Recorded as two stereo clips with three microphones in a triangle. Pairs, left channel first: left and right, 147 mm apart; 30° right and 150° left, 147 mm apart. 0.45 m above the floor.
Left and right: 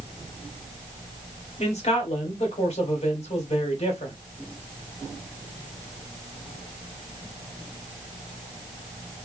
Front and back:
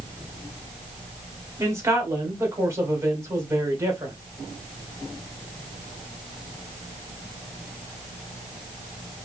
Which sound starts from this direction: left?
A man speaking, at 1.6 s.